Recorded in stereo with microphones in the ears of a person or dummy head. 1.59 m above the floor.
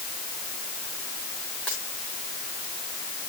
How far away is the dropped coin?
About 3.5 m.